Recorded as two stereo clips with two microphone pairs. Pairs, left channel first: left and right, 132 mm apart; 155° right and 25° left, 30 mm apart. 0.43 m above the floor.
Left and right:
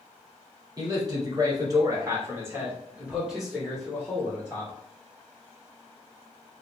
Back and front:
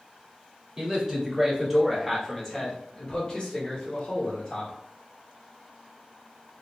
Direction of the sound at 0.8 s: 35° right.